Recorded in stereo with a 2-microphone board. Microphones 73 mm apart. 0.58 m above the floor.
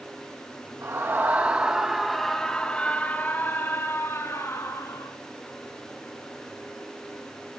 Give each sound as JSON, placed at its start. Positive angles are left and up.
{"t": 0.8, "sound": "a scream", "side_deg": -35, "distance_m": 3.0}